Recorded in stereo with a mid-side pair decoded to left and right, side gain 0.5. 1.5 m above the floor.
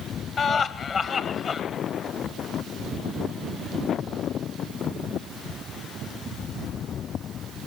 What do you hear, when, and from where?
0.4 s laughter: 50° left, 2 m